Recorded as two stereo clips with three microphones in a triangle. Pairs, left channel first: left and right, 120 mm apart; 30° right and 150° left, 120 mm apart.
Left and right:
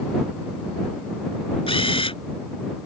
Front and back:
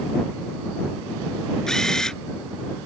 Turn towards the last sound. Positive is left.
turn(degrees=55)